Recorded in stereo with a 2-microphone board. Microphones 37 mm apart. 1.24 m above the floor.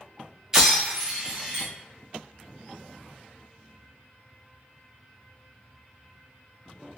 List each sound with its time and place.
0.5 s breaking glass: 10° right (ahead or behind), 1.2 m